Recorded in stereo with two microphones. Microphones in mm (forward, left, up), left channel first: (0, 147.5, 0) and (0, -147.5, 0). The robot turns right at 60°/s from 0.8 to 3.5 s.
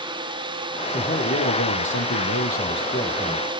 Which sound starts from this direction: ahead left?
A man speaking, at 0.9 s.